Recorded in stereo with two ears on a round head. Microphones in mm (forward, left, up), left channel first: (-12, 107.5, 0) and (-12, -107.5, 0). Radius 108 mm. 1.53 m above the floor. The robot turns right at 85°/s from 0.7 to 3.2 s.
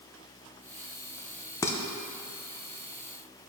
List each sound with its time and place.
1.6 s dishes clattering: 15° left (ahead or behind), 0.6 m; by 1.8 s 5° left (ahead or behind), 0.6 m